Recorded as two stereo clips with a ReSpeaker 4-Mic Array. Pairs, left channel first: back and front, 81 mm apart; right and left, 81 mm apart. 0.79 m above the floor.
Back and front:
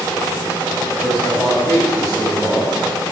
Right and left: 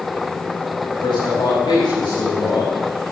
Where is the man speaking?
120° right, 5.5 m.